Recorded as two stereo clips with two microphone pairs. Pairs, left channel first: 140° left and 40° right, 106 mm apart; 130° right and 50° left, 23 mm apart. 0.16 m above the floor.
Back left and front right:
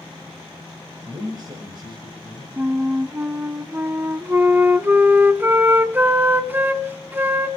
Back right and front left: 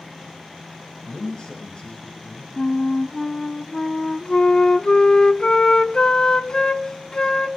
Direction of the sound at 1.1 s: 85° right.